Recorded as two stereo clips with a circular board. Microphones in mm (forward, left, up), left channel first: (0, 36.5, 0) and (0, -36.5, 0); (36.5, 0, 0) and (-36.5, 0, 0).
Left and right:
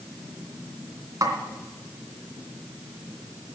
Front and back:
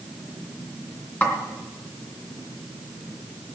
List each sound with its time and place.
1.2 s a snare drum: 65° right, 2.5 m